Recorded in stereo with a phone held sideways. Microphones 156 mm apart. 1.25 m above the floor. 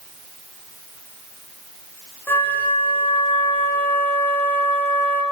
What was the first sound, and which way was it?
A flute, 15° left (ahead or behind).